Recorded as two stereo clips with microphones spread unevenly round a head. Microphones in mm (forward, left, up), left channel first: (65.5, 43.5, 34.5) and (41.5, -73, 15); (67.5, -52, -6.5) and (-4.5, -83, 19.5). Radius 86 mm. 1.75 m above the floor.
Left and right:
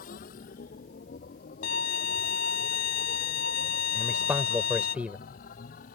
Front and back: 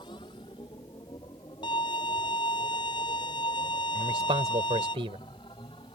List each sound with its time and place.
0.0 s a machine running: 85° left
1.6 s a violin: 85° left
4.0 s a man speaking: 175° left